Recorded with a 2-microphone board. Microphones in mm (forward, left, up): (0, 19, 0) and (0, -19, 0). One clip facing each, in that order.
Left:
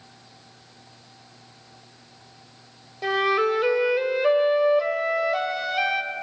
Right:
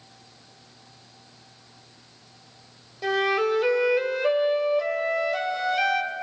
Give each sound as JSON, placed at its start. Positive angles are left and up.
{"t": 3.0, "sound": "a flute", "side_deg": 15, "distance_m": 1.4}